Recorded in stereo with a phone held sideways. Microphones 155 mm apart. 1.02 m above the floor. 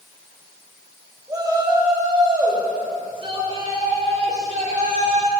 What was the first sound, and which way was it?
A shout, 25° right (ahead or behind).